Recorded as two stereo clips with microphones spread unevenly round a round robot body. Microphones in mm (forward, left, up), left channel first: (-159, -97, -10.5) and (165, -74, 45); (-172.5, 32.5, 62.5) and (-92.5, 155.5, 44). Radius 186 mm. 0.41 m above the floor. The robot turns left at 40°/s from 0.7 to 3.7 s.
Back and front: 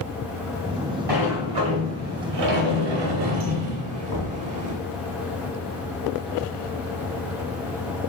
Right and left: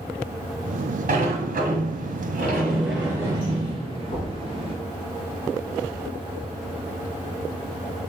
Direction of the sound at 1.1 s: 70° left.